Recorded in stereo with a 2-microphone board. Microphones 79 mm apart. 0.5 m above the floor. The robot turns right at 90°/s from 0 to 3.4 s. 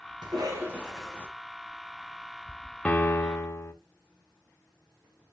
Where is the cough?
70° right, 4 m; by 1.3 s 20° left, 4 m.